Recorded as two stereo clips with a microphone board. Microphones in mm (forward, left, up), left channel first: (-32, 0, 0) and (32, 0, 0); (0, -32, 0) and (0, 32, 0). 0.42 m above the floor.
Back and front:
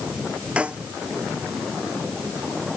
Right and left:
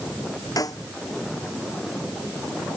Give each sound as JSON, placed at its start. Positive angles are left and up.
{"t": 0.6, "sound": "a snare drum", "azimuth_deg": -75}